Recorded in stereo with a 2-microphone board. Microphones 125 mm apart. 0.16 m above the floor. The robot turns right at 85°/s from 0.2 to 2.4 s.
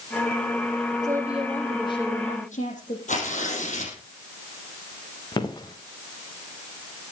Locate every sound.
1.0 s a woman speaking: 35° right, 7 m; by 3.0 s 80° left, 7 m
3.1 s tearing paper: 75° left (ahead or behind), 5 m
5.3 s footsteps: 35° left (ahead or behind), 2.5 m